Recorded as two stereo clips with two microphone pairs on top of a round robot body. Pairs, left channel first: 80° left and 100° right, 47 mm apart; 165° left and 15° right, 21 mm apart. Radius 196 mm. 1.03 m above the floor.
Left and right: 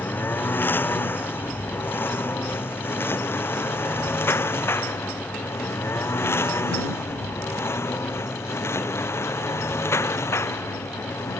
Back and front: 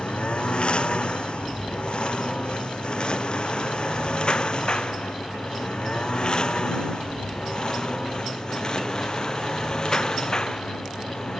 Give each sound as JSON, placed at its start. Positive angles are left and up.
{"t": 0.0, "sound": "a lawn mower", "azimuth_deg": 130}